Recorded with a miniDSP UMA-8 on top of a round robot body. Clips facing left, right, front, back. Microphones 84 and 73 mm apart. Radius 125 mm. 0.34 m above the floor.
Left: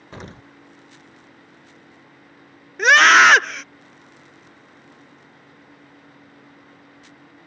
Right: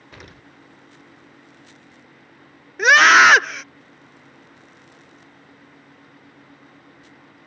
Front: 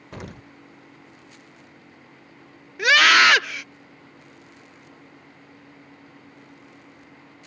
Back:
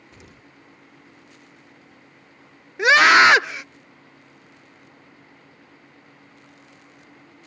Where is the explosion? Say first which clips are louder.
Left 6 dB, front 13 dB; 30° left.